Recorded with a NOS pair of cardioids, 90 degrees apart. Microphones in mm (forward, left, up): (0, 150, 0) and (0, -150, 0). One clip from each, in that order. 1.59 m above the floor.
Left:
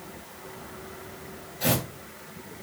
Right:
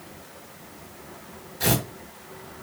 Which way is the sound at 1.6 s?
65° right.